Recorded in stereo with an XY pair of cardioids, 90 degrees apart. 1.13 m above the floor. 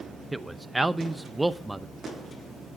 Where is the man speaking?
10° right, 0.7 m.